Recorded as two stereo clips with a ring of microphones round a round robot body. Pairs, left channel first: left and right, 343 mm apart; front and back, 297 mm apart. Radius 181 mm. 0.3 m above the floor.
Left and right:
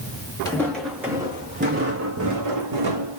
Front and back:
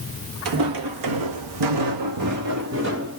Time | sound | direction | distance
0.5 | footsteps | 170° left | 1.4 m